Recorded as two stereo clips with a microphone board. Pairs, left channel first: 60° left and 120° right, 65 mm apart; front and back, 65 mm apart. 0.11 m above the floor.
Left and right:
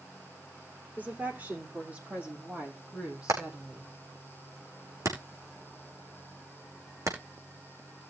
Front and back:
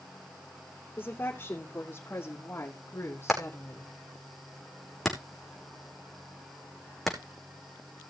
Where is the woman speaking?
60° right, 5.5 m; by 3.9 s 50° right, 4 m.